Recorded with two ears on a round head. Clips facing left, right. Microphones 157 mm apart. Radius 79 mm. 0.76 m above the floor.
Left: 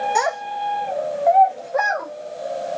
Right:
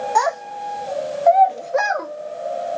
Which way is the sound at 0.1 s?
25° left (ahead or behind).